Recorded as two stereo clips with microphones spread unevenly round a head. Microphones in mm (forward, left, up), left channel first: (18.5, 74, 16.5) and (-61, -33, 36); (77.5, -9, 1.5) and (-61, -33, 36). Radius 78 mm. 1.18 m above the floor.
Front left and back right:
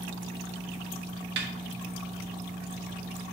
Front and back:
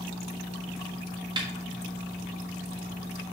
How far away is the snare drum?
About 1.4 m.